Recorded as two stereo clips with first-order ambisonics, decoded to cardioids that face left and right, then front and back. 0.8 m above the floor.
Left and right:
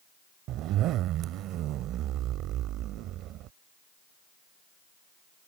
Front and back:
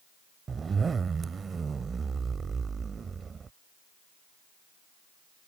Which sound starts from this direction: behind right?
A zipper, at 0.5 s.